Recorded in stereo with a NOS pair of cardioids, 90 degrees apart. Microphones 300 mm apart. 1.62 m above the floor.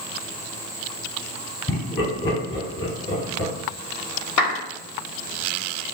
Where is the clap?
70° left, 2.5 m.